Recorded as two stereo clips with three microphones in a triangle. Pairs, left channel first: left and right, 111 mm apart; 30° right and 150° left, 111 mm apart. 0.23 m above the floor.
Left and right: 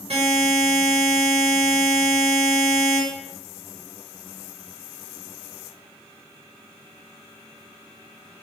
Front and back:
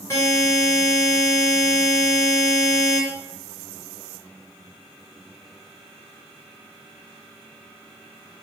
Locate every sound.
0.1 s a buzzer: 95° right, 1.6 m